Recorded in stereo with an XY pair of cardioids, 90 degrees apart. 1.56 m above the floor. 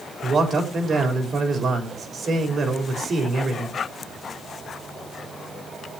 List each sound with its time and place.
0.2 s a man speaking: 55° right, 4 m